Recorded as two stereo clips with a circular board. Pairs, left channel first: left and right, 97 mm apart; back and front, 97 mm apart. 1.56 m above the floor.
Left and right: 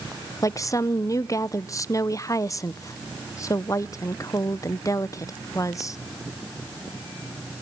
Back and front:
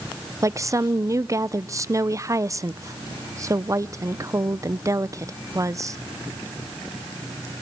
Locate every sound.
0.4 s a woman speaking: 45° left, 0.6 m